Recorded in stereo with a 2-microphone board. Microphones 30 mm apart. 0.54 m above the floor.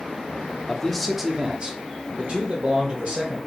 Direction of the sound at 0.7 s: 15° left (ahead or behind).